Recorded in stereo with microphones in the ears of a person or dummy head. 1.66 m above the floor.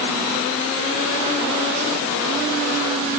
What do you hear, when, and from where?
Only background noise.